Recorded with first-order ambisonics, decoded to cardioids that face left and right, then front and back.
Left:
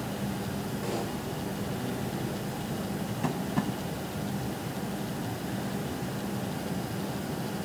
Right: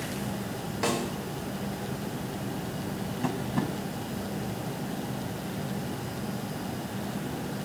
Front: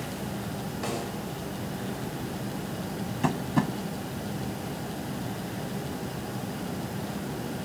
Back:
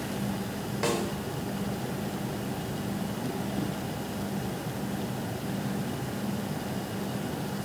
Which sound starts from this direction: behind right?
A snare drum, at 0.8 s.